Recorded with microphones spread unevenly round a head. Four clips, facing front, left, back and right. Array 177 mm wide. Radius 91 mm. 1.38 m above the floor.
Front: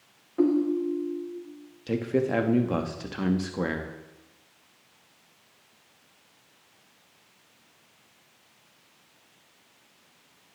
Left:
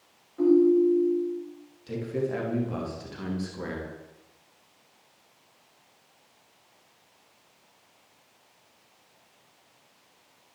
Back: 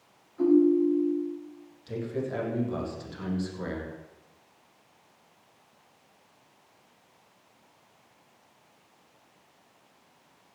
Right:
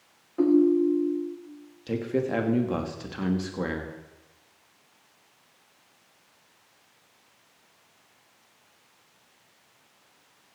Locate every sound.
0.4 s a ringtone: 30° right, 4.5 m
1.9 s a man speaking: 25° right, 2.5 m